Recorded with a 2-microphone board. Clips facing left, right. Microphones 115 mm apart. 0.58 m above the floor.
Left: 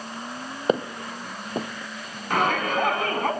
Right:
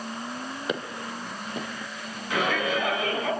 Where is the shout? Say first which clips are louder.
Left 3 dB; 55° left (ahead or behind), 5.5 m.